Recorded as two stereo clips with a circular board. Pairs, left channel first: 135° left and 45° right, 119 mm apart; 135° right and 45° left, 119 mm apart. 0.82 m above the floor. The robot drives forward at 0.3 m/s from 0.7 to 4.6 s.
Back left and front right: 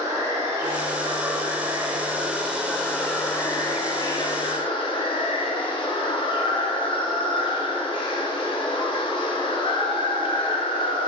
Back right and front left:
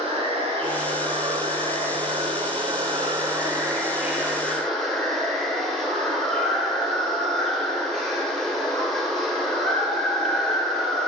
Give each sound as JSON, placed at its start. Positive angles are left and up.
{"t": 0.0, "sound": "running water", "azimuth_deg": 20, "distance_m": 1.0}